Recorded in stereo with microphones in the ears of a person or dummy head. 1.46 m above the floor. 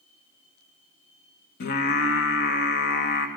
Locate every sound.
1.6 s singing: 60° left (ahead or behind), 1.2 m